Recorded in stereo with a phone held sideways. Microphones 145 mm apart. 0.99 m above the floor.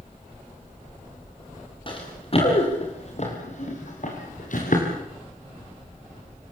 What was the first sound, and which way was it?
Running footsteps, 35° left (ahead or behind).